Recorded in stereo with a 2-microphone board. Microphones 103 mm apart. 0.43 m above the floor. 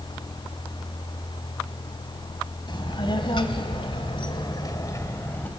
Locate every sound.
2.7 s a child speaking: 50° left (ahead or behind), 2 m; by 5.5 s 20° left (ahead or behind), 1.8 m